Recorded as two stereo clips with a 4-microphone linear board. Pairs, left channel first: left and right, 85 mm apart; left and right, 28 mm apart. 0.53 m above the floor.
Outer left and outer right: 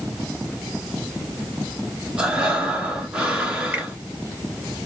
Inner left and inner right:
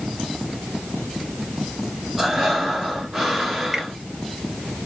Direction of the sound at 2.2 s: 10° right (ahead or behind).